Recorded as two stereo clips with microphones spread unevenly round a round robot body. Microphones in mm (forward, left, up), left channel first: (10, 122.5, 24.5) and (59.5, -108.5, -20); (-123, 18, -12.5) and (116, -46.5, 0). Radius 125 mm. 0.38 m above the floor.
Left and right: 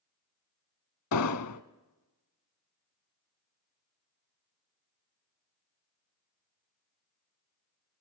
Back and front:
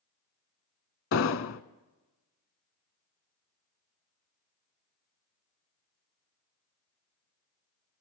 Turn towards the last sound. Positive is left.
turn(degrees=125)